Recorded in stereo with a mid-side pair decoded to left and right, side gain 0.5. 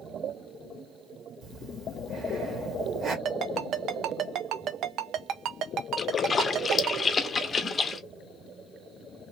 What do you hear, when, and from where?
1.4 s breathing: 55° right, 1.6 m
3.2 s a ringtone: 65° right, 0.7 m
6.0 s a splash: 35° left, 0.6 m